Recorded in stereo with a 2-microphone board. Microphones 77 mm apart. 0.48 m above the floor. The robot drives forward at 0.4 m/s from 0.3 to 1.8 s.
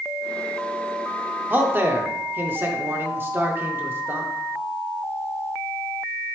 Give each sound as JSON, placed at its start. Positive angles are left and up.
{"t": 1.5, "sound": "a man speaking", "side_deg": -30, "distance_m": 0.9}